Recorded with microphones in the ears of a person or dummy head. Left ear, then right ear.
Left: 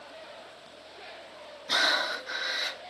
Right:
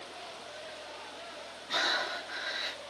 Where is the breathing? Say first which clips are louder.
Left 5 dB; 80° left, 1.3 m.